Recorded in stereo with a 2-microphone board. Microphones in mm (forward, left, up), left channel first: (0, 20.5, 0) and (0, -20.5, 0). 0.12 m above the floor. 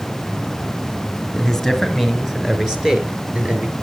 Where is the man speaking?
5° left (ahead or behind), 1.7 m; by 3.7 s 30° right (ahead or behind), 2.0 m.